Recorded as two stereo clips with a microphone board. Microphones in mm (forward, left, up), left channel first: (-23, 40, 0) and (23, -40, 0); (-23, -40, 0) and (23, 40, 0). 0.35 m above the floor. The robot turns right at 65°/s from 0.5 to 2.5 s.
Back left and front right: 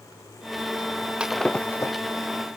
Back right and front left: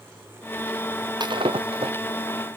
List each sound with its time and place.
1.2 s breaking glass: 20° left; by 2.0 s 70° left